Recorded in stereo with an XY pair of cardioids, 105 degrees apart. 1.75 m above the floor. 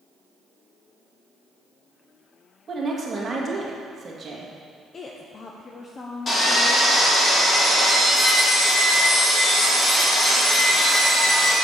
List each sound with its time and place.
2.7 s a woman speaking: 30° right, 2.0 m
4.9 s a woman speaking: 40° left, 0.7 m
6.3 s sawing: 35° left, 3 m